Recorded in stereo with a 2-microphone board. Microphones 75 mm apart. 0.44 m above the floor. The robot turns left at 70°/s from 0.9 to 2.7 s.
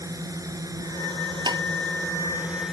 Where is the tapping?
65° right (ahead or behind); by 1.6 s 55° right (ahead or behind).